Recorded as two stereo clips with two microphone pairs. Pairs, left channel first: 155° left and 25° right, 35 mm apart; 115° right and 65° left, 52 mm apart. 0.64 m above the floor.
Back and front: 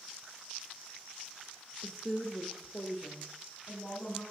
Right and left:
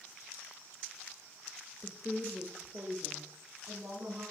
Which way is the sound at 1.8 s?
100° right.